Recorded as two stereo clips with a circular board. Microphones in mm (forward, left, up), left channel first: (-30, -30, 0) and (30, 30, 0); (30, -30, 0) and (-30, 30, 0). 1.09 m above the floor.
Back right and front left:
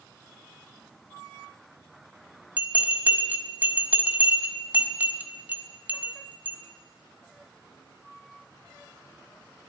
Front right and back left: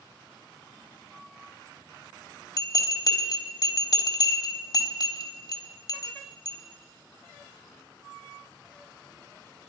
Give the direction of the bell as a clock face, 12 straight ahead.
1 o'clock.